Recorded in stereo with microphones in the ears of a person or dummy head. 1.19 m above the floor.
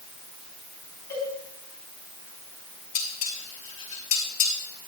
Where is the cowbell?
20° left (ahead or behind), 4 m.